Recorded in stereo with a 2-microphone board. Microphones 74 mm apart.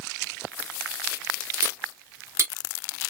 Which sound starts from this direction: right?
Cutlery clinking, at 1.6 s.